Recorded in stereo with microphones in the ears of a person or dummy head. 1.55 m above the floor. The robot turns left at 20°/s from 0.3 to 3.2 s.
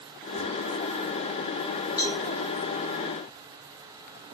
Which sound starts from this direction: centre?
A cowbell, at 2.0 s.